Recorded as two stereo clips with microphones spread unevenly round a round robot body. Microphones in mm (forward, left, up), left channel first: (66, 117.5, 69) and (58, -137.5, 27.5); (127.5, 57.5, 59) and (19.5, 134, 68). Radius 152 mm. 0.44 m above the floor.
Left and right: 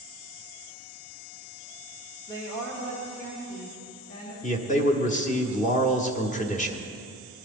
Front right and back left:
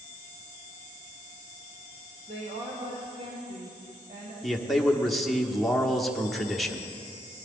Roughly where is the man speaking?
Ahead left.